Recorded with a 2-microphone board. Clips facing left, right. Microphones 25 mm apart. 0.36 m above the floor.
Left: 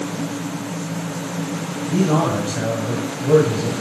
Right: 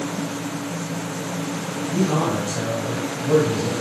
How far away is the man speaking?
About 2 m.